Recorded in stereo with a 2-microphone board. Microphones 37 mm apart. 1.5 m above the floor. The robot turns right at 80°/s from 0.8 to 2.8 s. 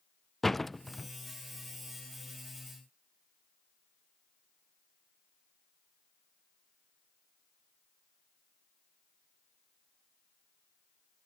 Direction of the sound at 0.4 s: 5° left (ahead or behind).